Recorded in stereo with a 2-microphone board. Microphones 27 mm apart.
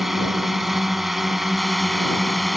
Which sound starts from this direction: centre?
A drone, at 0.0 s.